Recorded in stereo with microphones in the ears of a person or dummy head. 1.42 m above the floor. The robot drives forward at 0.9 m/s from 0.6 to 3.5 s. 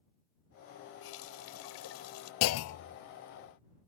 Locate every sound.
1.0 s a running tap: 75° left (ahead or behind); by 2.3 s 80° left
2.4 s a clunk: 65° left (ahead or behind); by 3.0 s 55° left (ahead or behind)